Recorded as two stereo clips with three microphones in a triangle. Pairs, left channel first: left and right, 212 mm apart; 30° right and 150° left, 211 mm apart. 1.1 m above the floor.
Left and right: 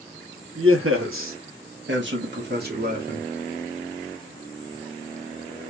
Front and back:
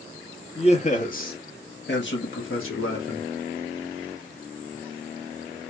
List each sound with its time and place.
0.6 s a man speaking: 95° right, 1.4 m; by 3.3 s 40° right, 1.8 m